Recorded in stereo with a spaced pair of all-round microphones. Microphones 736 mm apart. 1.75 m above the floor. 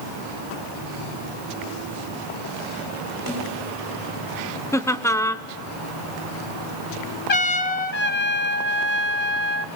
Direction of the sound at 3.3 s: 30° right (ahead or behind).